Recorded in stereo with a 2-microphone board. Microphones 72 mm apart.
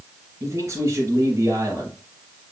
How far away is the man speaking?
About 3 m.